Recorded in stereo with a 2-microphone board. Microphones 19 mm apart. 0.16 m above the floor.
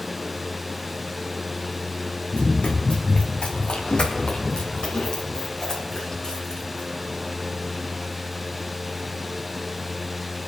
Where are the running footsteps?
85° left, 2 m; by 6.9 s 30° left (ahead or behind), 3.5 m.